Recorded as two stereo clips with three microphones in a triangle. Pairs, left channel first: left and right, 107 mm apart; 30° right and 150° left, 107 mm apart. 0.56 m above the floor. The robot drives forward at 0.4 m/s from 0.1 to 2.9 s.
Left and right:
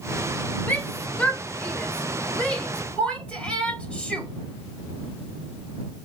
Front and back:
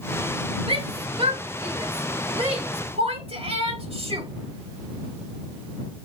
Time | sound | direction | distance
0.7 | a shout | 160° left | 1.5 m